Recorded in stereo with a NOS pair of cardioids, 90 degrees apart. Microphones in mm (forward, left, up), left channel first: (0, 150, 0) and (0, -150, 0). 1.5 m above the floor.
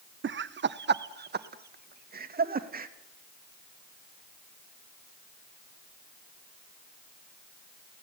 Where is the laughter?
45° right, 1.3 m; by 2.9 s 30° right, 3 m.